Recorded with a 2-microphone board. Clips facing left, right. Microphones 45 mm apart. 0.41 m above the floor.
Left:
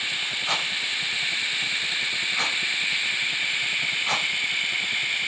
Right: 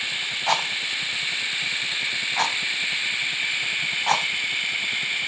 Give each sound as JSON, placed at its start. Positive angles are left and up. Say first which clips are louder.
{"t": 0.5, "sound": "a rattle", "louder": "right 5 dB", "side_deg": -55, "distance_m": 2.5}